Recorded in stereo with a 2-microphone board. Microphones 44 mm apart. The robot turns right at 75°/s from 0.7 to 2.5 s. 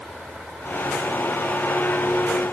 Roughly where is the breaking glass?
I don't hear breaking glass.